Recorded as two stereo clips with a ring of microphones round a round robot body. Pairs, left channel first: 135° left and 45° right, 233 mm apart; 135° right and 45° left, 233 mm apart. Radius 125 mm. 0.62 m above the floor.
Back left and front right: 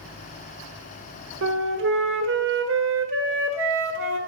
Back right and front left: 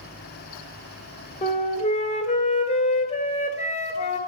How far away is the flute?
About 1.4 m.